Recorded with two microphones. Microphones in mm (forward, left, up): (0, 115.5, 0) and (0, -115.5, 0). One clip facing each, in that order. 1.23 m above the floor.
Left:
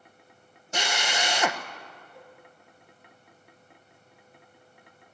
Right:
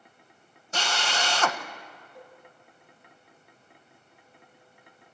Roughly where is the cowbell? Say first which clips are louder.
Right 3 dB; centre.